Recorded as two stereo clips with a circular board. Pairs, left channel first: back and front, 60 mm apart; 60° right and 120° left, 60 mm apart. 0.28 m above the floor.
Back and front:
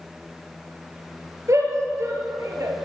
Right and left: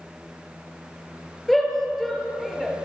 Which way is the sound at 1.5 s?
30° left.